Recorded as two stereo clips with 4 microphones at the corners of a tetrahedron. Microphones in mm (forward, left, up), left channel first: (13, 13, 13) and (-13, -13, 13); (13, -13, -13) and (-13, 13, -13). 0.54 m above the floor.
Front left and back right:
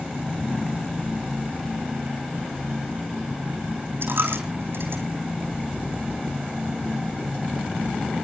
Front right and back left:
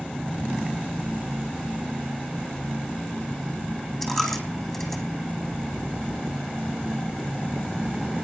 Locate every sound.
4.0 s a dropped coin: 130° right, 3.5 m